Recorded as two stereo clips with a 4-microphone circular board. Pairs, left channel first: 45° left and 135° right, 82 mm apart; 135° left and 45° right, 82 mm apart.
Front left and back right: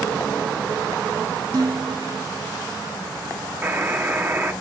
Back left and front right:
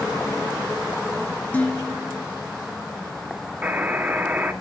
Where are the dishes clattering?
155° right, 1.6 m.